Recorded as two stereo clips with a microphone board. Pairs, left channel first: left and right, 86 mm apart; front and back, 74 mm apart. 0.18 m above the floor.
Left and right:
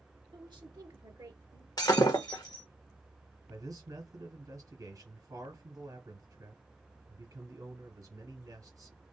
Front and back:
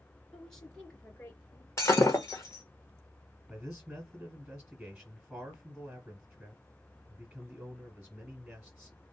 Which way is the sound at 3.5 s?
100° right.